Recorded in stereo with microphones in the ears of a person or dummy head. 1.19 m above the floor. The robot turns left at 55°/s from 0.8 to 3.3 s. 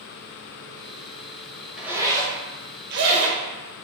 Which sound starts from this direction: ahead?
A zipper, at 1.8 s.